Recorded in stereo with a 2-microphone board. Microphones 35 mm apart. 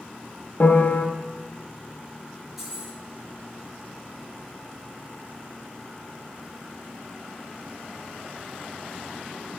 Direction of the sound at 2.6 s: 5° right (ahead or behind).